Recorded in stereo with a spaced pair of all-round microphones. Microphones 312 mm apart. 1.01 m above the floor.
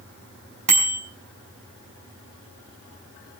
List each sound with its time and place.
0.7 s a bicycle bell: 85° right, 4.5 m